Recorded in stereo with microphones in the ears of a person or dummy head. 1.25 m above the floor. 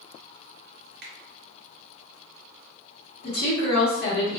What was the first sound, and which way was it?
A finger snap, 50° right (ahead or behind).